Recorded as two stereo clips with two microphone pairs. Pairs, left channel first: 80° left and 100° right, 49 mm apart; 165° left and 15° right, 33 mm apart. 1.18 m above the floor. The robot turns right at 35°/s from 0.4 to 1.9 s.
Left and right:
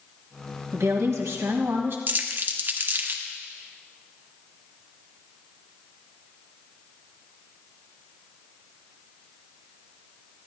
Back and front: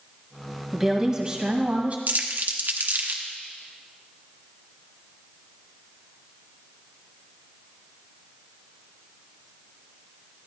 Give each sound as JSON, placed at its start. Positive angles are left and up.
{"t": 0.7, "sound": "a woman speaking", "azimuth_deg": -110, "distance_m": 1.5}
{"t": 2.1, "sound": "crumpling", "azimuth_deg": -50, "distance_m": 0.9}